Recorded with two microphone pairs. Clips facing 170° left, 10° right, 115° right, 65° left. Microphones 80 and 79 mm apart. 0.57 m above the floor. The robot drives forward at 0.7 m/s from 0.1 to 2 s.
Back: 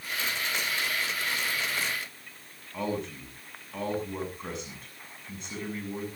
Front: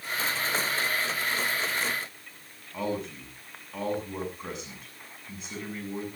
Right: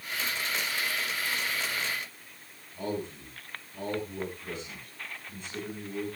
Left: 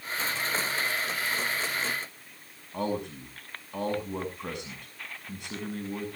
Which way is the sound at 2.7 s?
80° left.